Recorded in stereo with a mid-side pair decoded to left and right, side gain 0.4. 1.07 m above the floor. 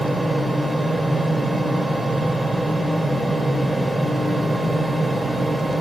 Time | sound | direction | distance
0.0 | a fan | 20° right | 2.5 m